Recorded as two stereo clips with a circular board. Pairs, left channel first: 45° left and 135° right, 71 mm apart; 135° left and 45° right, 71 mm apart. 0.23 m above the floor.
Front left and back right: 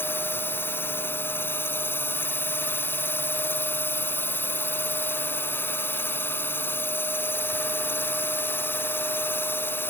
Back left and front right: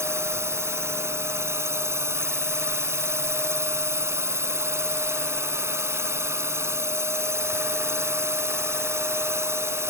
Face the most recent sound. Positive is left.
turn(degrees=-5)